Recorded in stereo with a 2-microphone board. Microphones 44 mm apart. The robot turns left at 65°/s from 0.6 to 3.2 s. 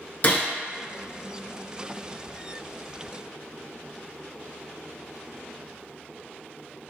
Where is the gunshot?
40° left (ahead or behind), 0.7 m.